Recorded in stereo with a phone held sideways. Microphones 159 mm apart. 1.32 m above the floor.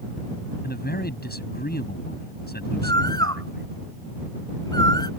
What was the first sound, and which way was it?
A man speaking, 85° left.